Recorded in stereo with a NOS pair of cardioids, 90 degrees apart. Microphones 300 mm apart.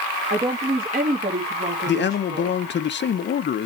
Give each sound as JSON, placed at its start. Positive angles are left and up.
{"t": 0.3, "sound": "a woman speaking", "azimuth_deg": -25, "distance_m": 1.5}
{"t": 1.9, "sound": "a man speaking", "azimuth_deg": 35, "distance_m": 0.7}